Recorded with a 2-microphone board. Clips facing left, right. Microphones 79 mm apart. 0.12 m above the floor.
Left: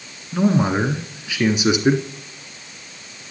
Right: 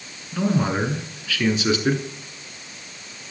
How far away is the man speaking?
About 1.1 m.